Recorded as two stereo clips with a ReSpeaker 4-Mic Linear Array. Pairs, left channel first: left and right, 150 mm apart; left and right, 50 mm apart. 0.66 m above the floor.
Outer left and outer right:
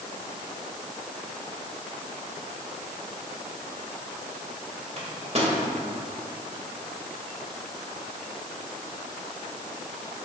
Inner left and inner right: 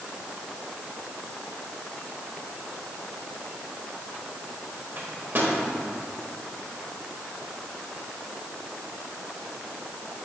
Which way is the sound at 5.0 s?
50° right (ahead or behind).